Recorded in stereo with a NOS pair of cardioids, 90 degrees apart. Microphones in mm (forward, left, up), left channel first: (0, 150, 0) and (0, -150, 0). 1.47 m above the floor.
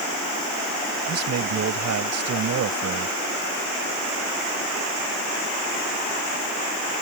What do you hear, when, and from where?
1.1 s a man speaking: 55° right